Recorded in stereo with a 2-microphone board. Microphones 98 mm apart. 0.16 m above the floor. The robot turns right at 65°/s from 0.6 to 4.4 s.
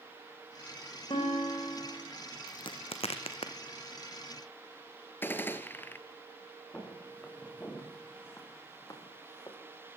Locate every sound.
1.1 s a guitar: 60° left, 6.5 m; by 2.1 s 125° left, 6.5 m
2.5 s a crack: 50° left (ahead or behind), 1.7 m; by 3.5 s 60° left (ahead or behind), 1.7 m
5.2 s a gunshot: 20° left (ahead or behind), 1.3 m
6.7 s footsteps: 10° left (ahead or behind), 6.5 m; by 9.6 s 45° left (ahead or behind), 4 m